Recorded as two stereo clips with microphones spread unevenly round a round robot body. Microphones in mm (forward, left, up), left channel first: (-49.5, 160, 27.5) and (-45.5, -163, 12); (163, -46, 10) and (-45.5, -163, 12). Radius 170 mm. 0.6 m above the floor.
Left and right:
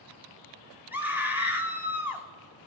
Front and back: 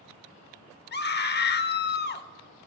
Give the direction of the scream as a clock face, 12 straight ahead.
12 o'clock.